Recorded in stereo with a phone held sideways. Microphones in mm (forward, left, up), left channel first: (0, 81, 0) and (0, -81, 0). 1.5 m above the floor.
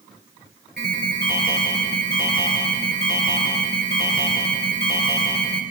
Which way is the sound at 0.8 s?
70° right (ahead or behind).